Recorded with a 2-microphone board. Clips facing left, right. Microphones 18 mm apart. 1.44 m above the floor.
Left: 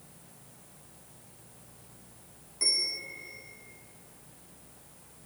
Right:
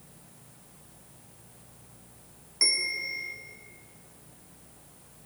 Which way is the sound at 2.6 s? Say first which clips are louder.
Right 3 dB; 65° right (ahead or behind).